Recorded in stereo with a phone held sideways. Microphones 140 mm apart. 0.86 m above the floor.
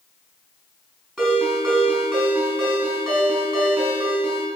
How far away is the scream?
No scream in this recording.